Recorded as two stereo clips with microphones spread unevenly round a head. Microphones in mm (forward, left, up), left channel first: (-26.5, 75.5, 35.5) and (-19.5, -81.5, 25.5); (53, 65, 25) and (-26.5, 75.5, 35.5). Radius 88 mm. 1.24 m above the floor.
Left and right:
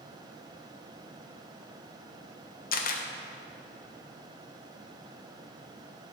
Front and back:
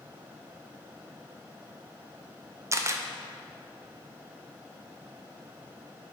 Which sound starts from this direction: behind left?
A camera shutter, at 2.7 s.